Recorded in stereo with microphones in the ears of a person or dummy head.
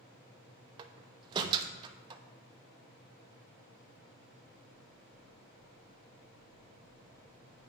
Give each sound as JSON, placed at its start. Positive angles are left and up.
{"t": 0.8, "sound": "a door slam", "side_deg": -25, "distance_m": 0.7}